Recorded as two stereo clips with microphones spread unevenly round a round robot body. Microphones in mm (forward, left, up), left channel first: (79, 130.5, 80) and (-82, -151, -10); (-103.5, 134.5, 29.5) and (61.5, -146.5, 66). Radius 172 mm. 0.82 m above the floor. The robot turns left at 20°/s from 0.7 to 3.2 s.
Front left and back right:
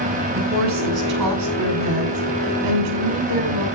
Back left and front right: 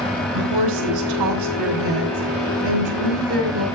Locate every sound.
0.3 s a woman speaking: 75° right, 6 m; by 3.7 s 125° right, 6 m